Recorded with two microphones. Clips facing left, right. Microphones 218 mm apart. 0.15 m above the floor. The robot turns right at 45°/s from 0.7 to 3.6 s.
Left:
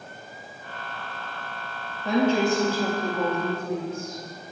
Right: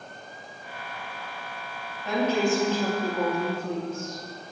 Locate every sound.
2.0 s a woman speaking: 140° left, 3 m; by 4.2 s 150° right, 3 m